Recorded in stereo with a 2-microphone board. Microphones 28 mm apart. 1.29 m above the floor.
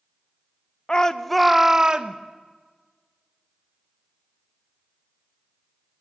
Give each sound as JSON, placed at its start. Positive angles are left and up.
{"t": 0.9, "sound": "a shout", "side_deg": 30, "distance_m": 0.6}